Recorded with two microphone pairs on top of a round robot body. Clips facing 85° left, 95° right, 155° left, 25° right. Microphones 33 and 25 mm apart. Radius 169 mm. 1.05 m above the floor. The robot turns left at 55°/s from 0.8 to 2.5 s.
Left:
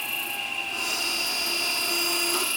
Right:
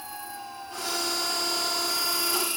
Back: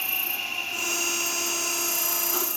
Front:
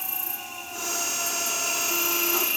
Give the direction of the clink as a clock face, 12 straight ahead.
No clink in this recording.